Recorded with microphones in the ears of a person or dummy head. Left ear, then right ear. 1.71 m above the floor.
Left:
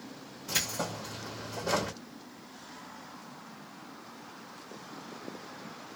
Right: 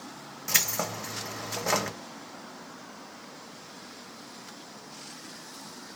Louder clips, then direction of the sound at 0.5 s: Right 4 dB; 50° right (ahead or behind).